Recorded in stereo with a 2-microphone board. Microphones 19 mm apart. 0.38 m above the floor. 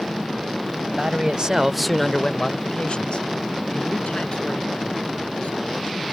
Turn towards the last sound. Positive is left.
turn(degrees=80)